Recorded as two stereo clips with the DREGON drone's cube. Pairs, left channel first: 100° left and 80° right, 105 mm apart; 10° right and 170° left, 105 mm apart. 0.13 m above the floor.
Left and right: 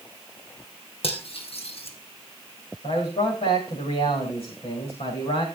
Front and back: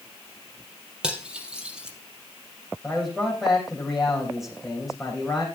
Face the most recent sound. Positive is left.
turn(degrees=80)